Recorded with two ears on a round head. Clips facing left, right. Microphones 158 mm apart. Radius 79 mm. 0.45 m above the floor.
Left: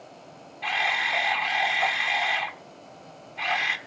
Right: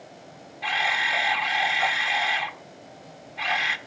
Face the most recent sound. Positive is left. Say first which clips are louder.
# right 1 dB
turn(degrees=-5)  # may be behind; listen again after turning